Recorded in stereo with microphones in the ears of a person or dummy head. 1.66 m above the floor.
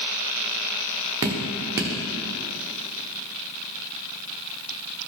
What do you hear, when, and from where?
1.2 s dripping: 20° right (ahead or behind), 0.9 m